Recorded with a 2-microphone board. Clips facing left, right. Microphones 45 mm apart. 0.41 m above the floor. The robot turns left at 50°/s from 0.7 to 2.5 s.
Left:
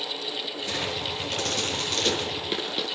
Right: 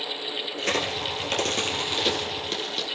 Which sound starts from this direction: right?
A crack, at 0.6 s.